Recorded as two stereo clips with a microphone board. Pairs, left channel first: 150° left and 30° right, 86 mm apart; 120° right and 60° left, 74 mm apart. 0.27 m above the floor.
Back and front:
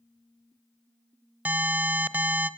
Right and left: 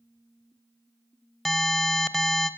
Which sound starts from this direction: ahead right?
An alarm, at 1.4 s.